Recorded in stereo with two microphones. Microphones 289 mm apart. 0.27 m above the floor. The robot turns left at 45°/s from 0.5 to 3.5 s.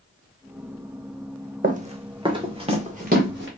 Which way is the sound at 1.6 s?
30° right (ahead or behind).